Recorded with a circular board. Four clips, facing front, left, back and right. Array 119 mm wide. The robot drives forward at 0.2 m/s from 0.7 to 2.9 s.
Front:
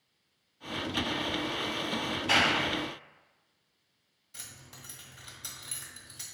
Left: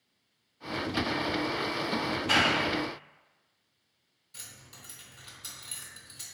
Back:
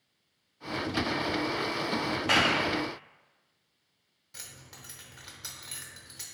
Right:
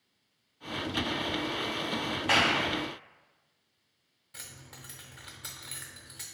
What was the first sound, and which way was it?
A clap, 150° right.